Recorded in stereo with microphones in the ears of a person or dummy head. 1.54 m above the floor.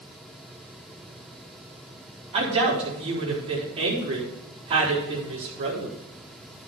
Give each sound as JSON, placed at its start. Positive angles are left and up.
{"t": 2.3, "sound": "a woman speaking", "side_deg": -35, "distance_m": 4.0}